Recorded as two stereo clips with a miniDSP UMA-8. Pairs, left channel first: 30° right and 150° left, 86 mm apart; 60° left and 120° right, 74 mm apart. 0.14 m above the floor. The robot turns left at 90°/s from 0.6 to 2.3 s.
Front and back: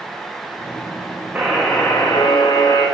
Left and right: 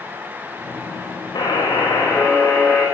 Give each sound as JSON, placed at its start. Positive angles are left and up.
{"t": 1.4, "sound": "a buzzer", "azimuth_deg": 75, "distance_m": 2.5}